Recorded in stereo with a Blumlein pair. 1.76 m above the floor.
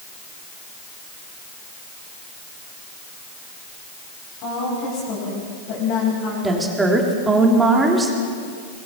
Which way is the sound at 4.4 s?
45° left.